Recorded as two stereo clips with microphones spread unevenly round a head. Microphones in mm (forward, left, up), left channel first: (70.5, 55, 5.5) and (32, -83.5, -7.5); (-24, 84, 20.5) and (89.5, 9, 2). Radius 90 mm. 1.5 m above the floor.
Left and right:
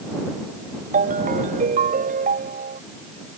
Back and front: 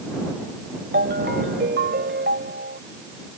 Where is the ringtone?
75° right.